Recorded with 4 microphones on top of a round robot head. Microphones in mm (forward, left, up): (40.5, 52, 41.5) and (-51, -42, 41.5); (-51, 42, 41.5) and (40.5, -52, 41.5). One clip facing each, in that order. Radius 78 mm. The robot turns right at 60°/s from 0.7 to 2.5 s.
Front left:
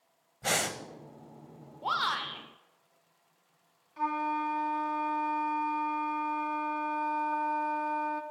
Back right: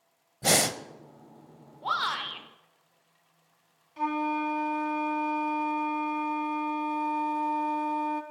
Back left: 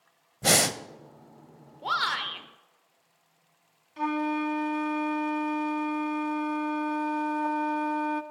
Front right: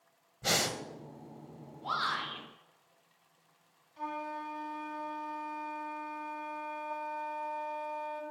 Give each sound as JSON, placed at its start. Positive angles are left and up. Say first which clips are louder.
{"t": 0.4, "sound": "breathing", "louder": "back right 6 dB, back left 8 dB", "azimuth_deg": 170, "distance_m": 0.9}
{"t": 1.8, "sound": "a shout", "louder": "back right 1 dB, back left 5 dB", "azimuth_deg": 120, "distance_m": 2.5}
{"t": 4.0, "sound": "a flute", "louder": "back right 3 dB, back left 11 dB", "azimuth_deg": 155, "distance_m": 1.0}